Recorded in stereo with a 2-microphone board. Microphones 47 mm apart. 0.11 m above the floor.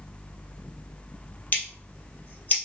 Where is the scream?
I don't hear a scream.